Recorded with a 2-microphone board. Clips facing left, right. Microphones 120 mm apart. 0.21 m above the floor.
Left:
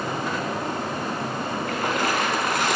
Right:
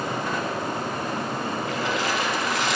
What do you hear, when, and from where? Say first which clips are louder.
1.7 s a splash: left 3 dB; 55° left (ahead or behind), 1.5 m